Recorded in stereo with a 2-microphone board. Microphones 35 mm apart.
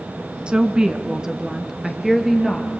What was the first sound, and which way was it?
A woman speaking, 30° right (ahead or behind).